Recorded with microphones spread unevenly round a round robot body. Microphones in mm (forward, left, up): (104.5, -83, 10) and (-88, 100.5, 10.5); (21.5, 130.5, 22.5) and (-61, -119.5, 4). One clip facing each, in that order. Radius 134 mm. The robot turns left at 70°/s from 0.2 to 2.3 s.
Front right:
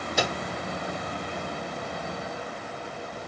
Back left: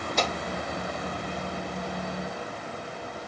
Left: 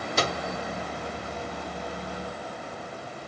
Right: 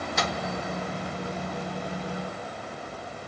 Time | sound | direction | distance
0.2 | a microwave | 30° left | 0.7 m